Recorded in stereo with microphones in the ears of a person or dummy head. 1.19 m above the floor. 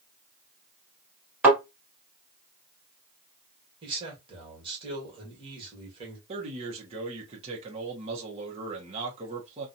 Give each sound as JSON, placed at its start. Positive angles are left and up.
{"t": 1.4, "sound": "a thud", "side_deg": -5, "distance_m": 1.6}
{"t": 3.8, "sound": "a man speaking", "side_deg": -25, "distance_m": 1.5}
{"t": 6.3, "sound": "a man speaking", "side_deg": -35, "distance_m": 0.9}